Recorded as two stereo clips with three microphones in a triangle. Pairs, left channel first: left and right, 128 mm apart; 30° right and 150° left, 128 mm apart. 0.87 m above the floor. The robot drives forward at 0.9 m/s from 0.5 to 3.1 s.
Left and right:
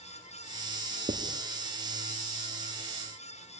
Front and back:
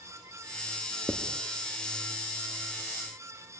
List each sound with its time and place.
1.1 s writing: 120° right, 1.7 m; by 1.4 s 125° right, 1.8 m